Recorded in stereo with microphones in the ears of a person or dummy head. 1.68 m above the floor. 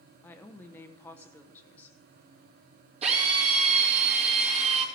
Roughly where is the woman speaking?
Centre.